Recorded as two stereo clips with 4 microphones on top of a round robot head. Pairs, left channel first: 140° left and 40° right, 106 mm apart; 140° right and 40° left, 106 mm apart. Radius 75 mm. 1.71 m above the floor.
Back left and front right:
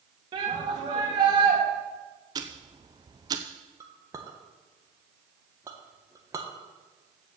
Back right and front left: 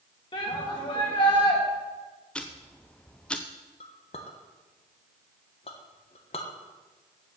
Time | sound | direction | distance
0.3 | a shout | 90° right | 3 m
2.4 | ticking | 65° right | 0.5 m
3.8 | a clink | 105° right | 1.1 m